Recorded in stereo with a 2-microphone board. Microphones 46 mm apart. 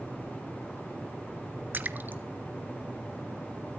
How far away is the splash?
About 1.0 m.